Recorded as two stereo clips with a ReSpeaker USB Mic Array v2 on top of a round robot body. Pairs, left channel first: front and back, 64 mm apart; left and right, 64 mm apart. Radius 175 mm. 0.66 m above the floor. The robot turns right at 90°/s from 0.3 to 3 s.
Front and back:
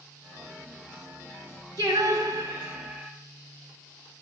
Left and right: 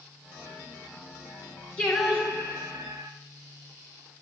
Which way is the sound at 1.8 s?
165° left.